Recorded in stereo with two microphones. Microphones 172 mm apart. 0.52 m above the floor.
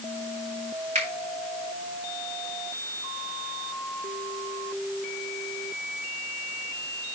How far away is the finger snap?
About 3.5 m.